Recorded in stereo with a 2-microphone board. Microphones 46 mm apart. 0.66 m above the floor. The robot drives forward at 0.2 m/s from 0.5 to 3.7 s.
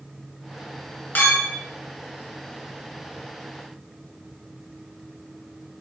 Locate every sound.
1.1 s a clink: 50° left (ahead or behind), 0.7 m; by 1.6 s 55° left (ahead or behind), 0.7 m